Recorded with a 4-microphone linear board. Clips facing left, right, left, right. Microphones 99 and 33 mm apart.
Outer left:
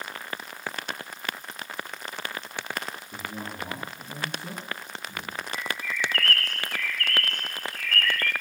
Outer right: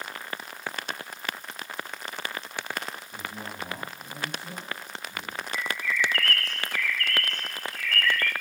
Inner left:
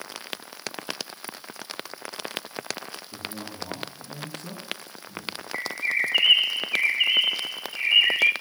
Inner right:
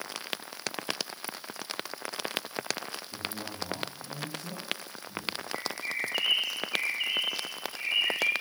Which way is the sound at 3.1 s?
85° left.